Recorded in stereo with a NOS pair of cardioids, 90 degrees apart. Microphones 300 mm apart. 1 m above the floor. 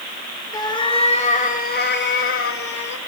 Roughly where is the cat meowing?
Ahead.